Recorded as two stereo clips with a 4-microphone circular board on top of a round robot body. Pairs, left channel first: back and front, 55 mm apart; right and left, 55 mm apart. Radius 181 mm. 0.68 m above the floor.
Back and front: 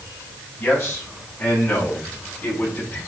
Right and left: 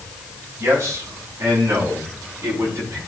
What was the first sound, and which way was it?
A man speaking, 135° left.